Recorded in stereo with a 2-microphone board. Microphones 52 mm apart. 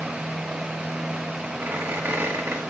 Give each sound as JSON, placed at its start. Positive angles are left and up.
{"t": 1.6, "sound": "a squeak", "side_deg": -55, "distance_m": 4.5}